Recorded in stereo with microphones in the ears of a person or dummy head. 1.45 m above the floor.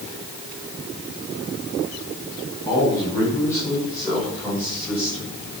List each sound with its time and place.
2.7 s a man speaking: 20° left (ahead or behind), 5.5 m; by 5.3 s 10° left (ahead or behind), 7.5 m